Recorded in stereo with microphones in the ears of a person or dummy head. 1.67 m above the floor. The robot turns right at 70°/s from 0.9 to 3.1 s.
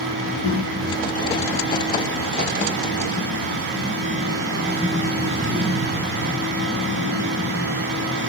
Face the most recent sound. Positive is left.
turn(degrees=-90)